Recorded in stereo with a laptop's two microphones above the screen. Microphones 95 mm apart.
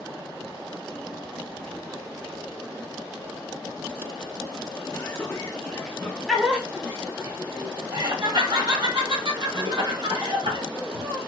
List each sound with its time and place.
4.9 s laughter: 35° left (ahead or behind), 1.1 m; by 11.2 s 65° right (ahead or behind), 2.5 m